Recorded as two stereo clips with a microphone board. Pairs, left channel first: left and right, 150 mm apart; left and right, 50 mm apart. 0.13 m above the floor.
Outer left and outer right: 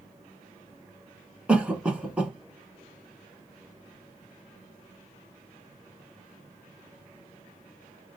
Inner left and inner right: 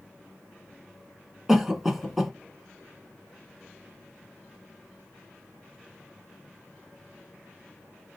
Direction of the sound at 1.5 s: 5° right (ahead or behind).